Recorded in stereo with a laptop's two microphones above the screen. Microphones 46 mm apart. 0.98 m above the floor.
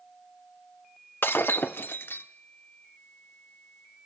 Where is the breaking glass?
50° left (ahead or behind), 0.8 m.